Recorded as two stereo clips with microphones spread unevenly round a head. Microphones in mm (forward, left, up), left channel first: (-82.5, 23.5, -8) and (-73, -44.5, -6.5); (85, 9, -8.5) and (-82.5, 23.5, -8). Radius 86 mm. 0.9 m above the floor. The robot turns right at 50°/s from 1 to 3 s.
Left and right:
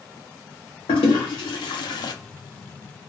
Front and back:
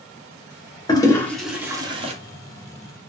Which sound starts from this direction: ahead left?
A toilet flushing, at 0.9 s.